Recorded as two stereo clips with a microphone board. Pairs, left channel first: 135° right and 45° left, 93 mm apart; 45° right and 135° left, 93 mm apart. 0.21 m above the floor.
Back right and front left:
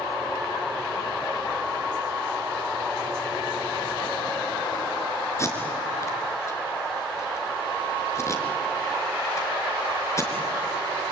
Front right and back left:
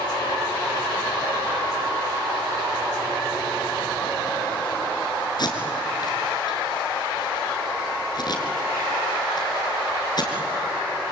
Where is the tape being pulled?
80° right, 3.5 m.